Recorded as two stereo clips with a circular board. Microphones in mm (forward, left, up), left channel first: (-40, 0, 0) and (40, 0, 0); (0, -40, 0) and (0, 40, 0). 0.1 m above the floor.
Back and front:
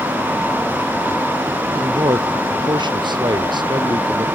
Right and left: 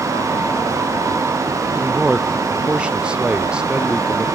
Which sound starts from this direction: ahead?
A man speaking, at 1.8 s.